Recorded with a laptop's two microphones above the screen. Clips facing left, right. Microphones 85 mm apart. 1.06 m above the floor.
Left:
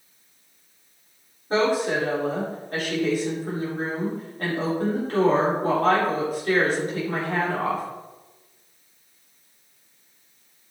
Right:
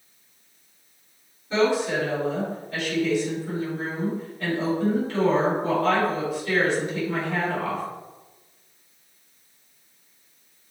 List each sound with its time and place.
1.5 s a woman speaking: 40° left (ahead or behind), 3 m